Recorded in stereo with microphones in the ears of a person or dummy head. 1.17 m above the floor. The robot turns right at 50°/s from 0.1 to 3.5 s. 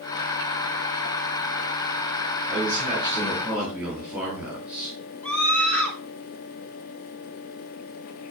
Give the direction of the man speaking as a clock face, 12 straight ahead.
2 o'clock.